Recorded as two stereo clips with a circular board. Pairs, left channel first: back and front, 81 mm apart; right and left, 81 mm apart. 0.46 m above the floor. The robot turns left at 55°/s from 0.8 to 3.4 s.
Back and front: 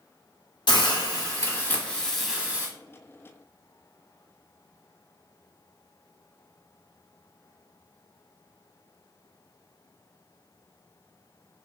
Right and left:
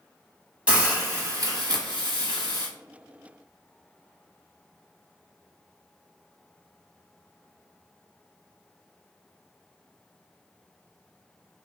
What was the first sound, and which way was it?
A hiss, 165° left.